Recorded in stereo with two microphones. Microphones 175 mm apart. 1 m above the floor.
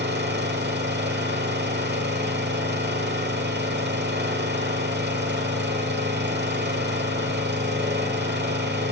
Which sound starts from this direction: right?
An engine running, at 0.0 s.